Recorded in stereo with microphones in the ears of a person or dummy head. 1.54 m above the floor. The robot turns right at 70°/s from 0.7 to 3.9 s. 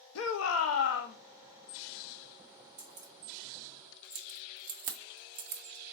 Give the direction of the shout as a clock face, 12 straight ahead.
9 o'clock.